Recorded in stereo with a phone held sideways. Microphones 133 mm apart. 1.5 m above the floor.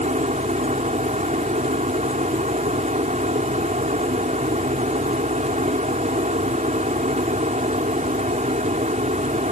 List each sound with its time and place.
0.0 s a fan: 85° right